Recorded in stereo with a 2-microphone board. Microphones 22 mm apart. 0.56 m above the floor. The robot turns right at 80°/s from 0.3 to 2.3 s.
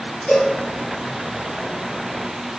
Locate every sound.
0.3 s a cowbell: 55° left (ahead or behind), 3.5 m; by 0.6 s 35° left (ahead or behind), 3.5 m